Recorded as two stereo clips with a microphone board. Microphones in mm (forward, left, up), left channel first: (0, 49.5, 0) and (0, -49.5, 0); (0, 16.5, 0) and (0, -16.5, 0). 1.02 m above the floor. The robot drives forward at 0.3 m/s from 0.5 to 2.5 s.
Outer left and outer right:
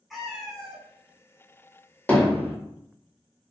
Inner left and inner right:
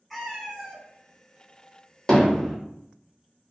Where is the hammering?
15° left (ahead or behind), 0.8 m.